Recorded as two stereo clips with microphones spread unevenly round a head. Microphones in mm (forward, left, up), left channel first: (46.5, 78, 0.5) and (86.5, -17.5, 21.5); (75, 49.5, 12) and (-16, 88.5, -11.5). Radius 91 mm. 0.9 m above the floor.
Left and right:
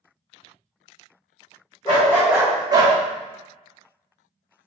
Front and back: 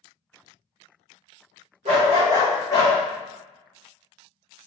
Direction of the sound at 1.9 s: Straight behind.